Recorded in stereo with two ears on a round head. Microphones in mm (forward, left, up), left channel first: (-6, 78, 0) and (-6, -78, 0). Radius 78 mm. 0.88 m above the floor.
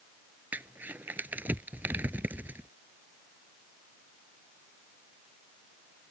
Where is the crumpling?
10° right (ahead or behind).